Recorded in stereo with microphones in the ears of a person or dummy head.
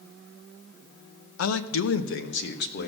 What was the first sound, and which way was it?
A man speaking, 85° left.